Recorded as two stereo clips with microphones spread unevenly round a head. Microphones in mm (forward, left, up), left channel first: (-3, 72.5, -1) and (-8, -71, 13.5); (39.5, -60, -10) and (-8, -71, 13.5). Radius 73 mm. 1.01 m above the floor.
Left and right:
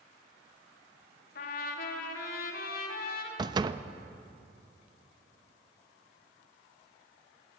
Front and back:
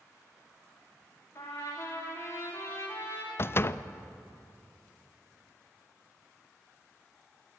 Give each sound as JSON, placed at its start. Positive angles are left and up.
{"t": 1.4, "sound": "a trumpet", "azimuth_deg": 65, "distance_m": 2.5}
{"t": 3.4, "sound": "a door slam", "azimuth_deg": -25, "distance_m": 0.6}